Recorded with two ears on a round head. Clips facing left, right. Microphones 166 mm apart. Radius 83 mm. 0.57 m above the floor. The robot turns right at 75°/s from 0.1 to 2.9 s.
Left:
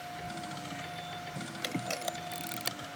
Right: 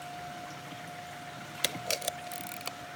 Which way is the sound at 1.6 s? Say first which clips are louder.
Even; 60° right (ahead or behind).